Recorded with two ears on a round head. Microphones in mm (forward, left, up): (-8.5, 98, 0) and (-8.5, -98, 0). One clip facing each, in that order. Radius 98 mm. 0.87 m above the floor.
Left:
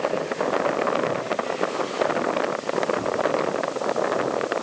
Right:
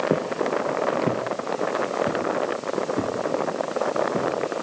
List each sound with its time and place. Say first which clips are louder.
0.1 s footsteps: right 1 dB; 70° right (ahead or behind), 5 m; by 4.3 s 35° right (ahead or behind), 7.5 m